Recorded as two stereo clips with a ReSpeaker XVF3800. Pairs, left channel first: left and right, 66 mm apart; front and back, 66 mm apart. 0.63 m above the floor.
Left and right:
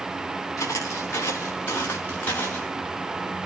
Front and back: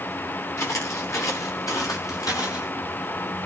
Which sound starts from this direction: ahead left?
Footsteps, at 0.6 s.